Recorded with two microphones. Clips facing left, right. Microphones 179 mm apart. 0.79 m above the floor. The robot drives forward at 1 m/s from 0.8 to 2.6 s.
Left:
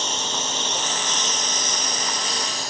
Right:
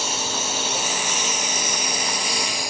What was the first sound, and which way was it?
A lawn mower, 10° right (ahead or behind).